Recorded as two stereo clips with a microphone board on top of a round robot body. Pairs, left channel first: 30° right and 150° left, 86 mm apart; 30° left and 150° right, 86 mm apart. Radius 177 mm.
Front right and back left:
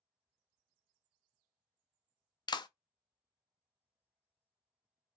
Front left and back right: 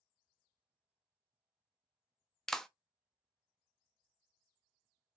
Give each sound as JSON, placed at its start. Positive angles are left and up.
{"t": 2.5, "sound": "a clap", "azimuth_deg": -55, "distance_m": 0.6}